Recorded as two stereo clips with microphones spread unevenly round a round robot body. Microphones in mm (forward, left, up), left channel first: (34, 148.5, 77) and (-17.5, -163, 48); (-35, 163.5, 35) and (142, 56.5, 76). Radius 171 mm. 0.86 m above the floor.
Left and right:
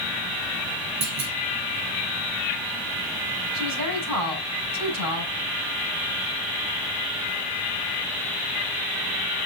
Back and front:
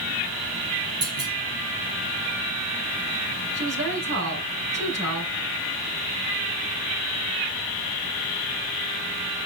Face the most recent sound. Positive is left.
turn(degrees=-85)